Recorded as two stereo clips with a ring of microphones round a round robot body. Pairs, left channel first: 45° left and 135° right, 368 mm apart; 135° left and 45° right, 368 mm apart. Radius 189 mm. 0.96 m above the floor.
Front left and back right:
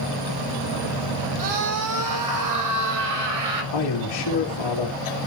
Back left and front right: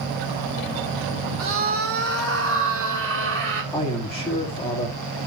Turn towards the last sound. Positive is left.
turn(degrees=55)